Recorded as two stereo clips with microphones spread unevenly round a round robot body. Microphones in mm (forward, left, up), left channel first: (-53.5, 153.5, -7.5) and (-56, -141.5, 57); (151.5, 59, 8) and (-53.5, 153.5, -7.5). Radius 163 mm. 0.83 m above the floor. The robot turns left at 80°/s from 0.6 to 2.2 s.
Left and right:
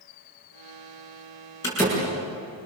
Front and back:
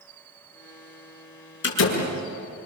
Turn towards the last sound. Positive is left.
turn(degrees=-35)